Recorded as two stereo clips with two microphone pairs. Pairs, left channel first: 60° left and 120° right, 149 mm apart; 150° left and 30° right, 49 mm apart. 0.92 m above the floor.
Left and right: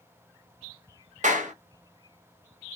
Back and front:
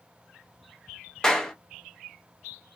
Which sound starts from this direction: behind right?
A clap, at 1.2 s.